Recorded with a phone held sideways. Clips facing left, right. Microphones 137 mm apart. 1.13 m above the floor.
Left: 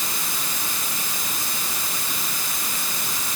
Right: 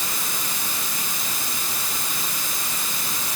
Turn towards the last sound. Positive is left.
No sound to turn to.